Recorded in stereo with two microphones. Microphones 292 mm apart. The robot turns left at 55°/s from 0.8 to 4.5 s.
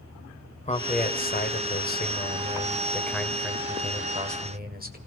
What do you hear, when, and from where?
0.6 s a man speaking: 135° left, 1.3 m; by 5.0 s 70° right, 1.3 m